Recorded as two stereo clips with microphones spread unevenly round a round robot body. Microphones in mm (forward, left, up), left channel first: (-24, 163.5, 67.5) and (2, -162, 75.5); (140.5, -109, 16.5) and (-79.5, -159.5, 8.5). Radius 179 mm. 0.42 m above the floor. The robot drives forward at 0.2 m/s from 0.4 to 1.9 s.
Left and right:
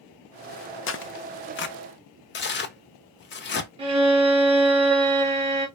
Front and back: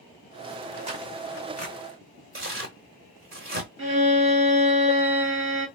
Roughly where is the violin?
Behind right.